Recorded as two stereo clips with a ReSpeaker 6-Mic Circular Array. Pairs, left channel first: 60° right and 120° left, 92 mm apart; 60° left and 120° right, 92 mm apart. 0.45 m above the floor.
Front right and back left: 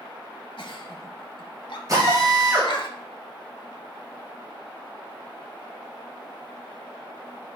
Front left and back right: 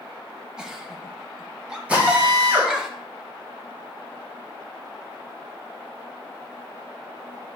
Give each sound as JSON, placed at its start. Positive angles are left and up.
{"t": 0.6, "sound": "a giggle", "azimuth_deg": -40, "distance_m": 1.1}
{"t": 1.9, "sound": "a drill", "azimuth_deg": 165, "distance_m": 4.0}